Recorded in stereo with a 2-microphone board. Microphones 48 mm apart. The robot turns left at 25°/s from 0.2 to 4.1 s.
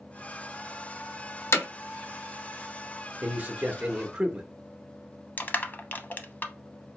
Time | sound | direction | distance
1.5 | hammering | 65° left (ahead or behind) | 1.1 m
3.2 | a man speaking | 25° right (ahead or behind) | 0.8 m
5.4 | crushing | 40° left (ahead or behind) | 0.6 m